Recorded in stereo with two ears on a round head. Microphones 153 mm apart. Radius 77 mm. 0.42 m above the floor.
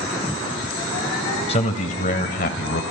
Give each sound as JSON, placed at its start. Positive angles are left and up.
{"t": 1.5, "sound": "a man speaking", "side_deg": 35, "distance_m": 2.5}